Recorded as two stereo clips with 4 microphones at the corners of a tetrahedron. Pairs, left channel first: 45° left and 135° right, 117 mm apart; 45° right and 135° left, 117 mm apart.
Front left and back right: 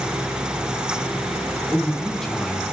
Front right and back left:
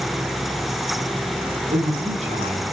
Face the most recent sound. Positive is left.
turn(degrees=135)